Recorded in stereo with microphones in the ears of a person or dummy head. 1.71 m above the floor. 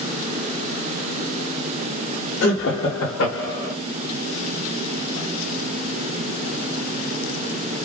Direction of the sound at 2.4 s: 65° left (ahead or behind).